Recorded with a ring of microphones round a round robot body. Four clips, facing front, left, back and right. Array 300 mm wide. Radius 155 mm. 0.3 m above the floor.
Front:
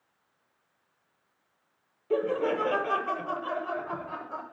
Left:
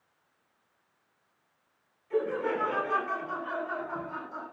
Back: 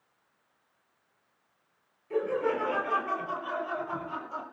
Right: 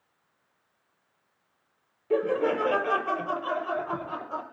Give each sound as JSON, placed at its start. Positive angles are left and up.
{"t": 2.1, "sound": "laughter", "azimuth_deg": -50, "distance_m": 8.0}